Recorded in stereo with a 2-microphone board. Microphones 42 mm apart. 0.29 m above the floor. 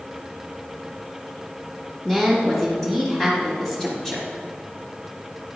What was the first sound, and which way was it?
A woman speaking, 10° left (ahead or behind).